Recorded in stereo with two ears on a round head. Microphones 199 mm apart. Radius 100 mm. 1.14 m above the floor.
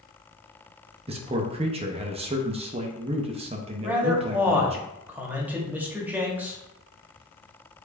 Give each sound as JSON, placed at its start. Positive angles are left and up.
{"t": 1.1, "sound": "a man speaking", "side_deg": -25, "distance_m": 0.6}
{"t": 3.8, "sound": "a man speaking", "side_deg": -10, "distance_m": 1.0}